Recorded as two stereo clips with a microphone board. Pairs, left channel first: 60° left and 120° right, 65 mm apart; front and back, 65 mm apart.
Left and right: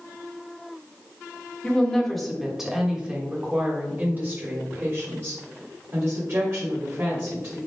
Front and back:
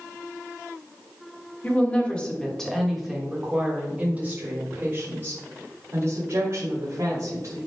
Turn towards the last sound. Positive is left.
turn(degrees=-150)